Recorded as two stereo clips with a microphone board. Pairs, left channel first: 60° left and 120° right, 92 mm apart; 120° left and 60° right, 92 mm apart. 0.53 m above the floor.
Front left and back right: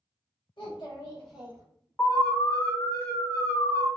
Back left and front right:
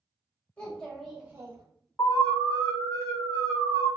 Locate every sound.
0.6 s a child speaking: 50° left, 1.0 m; by 1.6 s 85° right, 0.6 m
2.0 s an alarm: 105° left, 1.2 m